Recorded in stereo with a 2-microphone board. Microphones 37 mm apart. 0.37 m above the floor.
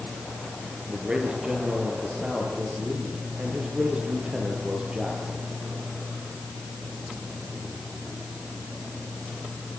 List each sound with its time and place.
0.9 s a man speaking: 25° right (ahead or behind), 8 m